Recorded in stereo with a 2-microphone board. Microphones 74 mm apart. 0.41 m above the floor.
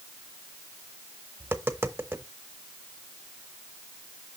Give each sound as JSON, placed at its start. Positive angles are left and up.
{"t": 1.4, "sound": "tapping", "side_deg": -30, "distance_m": 0.8}